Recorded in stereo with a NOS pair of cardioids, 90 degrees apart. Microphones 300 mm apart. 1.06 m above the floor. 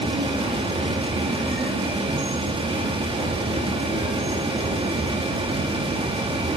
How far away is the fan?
About 1.7 m.